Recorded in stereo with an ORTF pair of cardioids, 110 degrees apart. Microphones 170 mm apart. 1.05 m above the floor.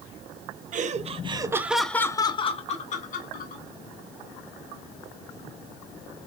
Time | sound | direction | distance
0.7 | laughter | 50° right | 1.0 m